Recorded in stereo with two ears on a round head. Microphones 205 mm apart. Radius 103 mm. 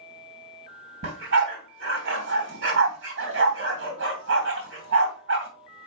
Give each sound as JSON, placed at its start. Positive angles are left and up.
{"t": 1.0, "sound": "a dog barking", "side_deg": -50, "distance_m": 2.5}